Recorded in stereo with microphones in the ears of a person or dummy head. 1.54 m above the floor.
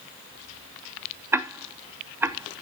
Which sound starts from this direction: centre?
Ticking, at 1.3 s.